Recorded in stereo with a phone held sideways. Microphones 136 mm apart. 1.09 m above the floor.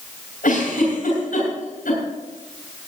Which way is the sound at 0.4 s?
65° left (ahead or behind).